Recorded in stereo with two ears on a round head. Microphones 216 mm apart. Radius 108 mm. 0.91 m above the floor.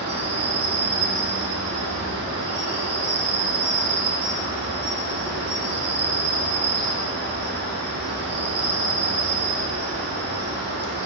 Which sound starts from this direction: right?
An insect, at 0.0 s.